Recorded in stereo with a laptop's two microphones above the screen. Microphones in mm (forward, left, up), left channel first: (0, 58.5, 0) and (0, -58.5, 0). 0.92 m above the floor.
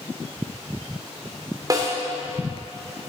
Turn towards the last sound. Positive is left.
turn(degrees=-30)  # may be behind; listen again after turning